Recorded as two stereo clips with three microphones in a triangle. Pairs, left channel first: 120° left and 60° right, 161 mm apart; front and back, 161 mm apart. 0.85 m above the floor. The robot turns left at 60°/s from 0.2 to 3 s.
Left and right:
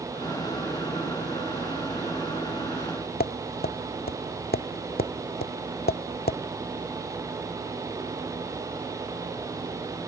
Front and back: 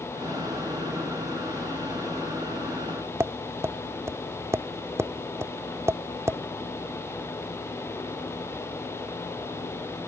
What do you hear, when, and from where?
3.2 s tapping: 105° left